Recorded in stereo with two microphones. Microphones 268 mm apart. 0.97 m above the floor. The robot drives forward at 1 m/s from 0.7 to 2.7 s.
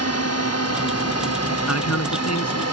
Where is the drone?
65° left (ahead or behind).